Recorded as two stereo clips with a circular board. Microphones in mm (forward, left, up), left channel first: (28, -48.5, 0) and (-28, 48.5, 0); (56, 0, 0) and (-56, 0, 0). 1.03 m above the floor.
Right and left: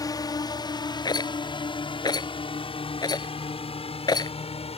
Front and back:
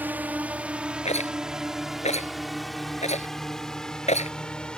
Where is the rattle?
10° right.